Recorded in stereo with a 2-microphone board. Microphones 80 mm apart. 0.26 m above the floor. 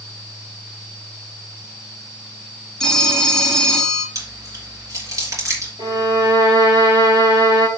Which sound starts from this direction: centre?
A phone ringing, at 2.8 s.